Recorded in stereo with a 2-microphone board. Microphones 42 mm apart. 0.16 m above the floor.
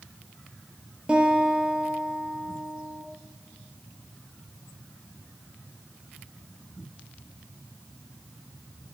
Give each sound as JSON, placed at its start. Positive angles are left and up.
{"t": 1.1, "sound": "a guitar", "side_deg": -20, "distance_m": 1.9}